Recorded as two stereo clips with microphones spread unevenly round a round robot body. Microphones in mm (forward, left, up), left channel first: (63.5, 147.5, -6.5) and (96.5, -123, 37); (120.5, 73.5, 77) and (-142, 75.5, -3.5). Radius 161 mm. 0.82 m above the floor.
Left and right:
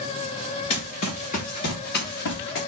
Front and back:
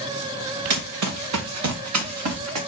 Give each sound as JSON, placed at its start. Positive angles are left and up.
{"t": 0.7, "sound": "running footsteps", "azimuth_deg": 170, "distance_m": 3.5}